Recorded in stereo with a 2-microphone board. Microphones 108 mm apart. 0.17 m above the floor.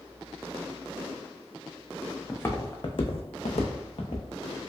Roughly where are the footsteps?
Centre.